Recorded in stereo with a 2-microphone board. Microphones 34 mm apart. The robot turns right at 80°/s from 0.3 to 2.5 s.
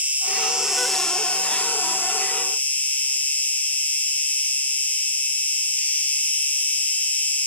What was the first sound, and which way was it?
An insect, 40° right.